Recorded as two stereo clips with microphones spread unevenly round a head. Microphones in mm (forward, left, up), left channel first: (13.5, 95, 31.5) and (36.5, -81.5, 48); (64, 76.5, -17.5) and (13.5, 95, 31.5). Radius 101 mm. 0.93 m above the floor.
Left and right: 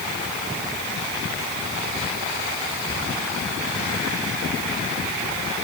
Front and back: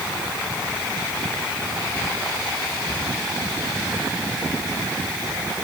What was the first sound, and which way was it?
Only background noise.